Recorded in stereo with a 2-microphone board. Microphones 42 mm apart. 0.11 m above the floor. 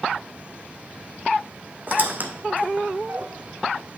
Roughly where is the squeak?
Right.